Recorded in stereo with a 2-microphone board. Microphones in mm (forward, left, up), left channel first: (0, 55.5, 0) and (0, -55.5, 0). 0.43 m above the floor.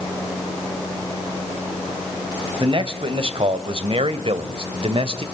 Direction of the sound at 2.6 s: 50° right (ahead or behind).